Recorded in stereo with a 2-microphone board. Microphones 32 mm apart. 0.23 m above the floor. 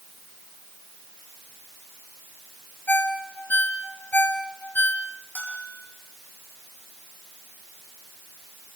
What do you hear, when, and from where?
2.9 s a ringtone: 65° left (ahead or behind), 3.5 m
5.3 s a bell: 80° left, 9.5 m